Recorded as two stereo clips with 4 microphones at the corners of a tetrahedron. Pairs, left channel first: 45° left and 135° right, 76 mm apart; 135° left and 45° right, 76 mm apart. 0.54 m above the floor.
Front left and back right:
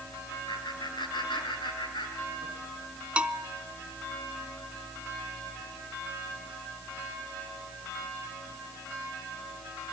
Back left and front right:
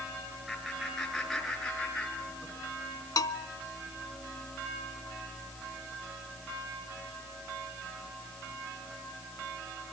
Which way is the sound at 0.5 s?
45° left.